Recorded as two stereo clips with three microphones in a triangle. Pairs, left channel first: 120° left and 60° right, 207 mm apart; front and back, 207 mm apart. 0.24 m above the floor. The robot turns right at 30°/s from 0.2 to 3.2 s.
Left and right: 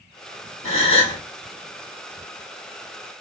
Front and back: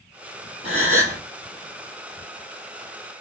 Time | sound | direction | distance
0.6 | a gasp | 120° left | 1.8 m